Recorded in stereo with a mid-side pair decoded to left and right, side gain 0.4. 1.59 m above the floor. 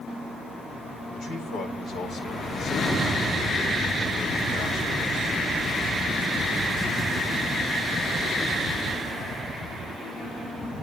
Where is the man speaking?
65° left, 7.5 m.